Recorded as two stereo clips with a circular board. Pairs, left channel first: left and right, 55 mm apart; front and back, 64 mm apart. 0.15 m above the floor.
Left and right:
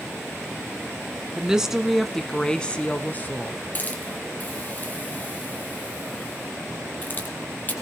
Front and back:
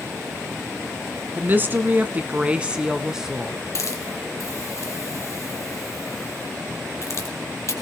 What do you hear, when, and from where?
1.4 s a woman speaking: 155° right, 1.3 m; by 3.6 s 95° left, 1.3 m
3.8 s a hiss: 35° left, 2 m